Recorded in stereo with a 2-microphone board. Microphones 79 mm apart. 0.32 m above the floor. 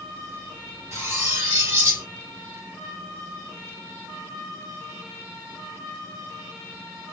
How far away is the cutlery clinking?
About 3 m.